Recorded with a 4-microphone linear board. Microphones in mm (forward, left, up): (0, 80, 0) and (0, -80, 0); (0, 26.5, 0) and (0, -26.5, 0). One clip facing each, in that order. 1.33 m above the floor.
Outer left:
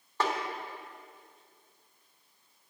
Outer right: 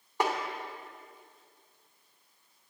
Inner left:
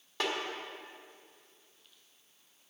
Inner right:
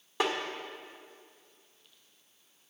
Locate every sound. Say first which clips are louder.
0.2 s a snare drum: outer right 1 dB, inner right 4 dB; 15° right (ahead or behind), 1.4 m